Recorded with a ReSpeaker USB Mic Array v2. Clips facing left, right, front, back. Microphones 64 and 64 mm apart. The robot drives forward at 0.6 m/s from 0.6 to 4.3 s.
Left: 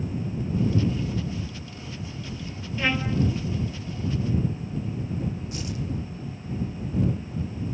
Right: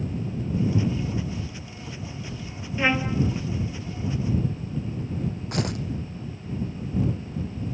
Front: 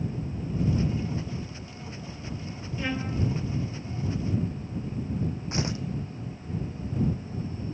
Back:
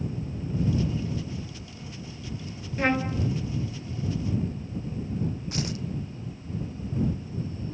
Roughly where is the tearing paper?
Ahead right.